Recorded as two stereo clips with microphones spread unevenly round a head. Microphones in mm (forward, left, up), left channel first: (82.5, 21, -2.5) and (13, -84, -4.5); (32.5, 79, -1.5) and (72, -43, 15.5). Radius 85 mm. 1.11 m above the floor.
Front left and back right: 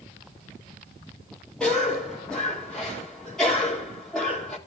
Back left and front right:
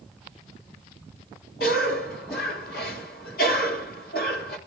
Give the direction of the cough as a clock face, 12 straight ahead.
7 o'clock.